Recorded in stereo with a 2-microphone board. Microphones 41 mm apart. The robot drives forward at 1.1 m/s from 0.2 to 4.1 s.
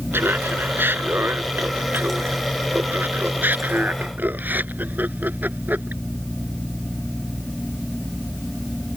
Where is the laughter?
60° right (ahead or behind); by 6.0 s 45° right (ahead or behind).